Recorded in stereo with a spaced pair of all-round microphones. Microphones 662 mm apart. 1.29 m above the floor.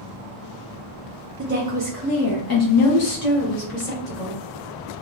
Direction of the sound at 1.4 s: 20° right (ahead or behind).